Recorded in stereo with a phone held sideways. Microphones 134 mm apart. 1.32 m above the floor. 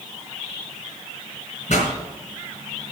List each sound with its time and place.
1.7 s a pop: 60° left (ahead or behind), 4 m